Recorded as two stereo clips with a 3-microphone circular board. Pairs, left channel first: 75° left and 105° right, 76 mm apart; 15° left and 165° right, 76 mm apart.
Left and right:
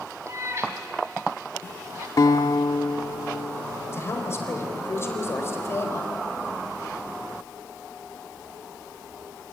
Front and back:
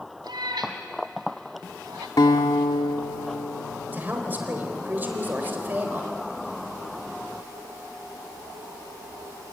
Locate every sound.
0.2 s a cat meowing: 155° right, 2.5 m
2.2 s a guitar: 40° left, 1.5 m
3.9 s a woman speaking: 130° left, 4 m